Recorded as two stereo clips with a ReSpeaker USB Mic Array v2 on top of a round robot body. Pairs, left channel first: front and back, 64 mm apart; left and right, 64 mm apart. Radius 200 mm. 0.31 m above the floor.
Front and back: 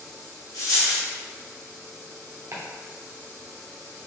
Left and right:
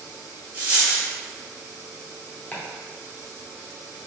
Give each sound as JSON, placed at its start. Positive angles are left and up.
{"t": 0.5, "sound": "a dropped coin", "azimuth_deg": -25, "distance_m": 0.9}
{"t": 2.5, "sound": "chopping", "azimuth_deg": 145, "distance_m": 1.0}